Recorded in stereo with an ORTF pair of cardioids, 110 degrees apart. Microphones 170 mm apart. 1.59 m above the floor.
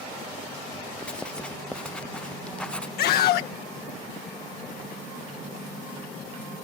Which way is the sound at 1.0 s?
5° left.